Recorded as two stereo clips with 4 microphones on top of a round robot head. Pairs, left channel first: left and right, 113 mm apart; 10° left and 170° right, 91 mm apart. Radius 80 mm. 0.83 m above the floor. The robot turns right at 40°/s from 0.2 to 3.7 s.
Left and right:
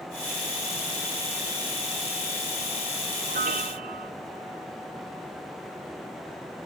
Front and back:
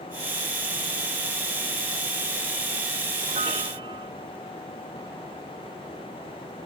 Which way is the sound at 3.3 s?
130° right.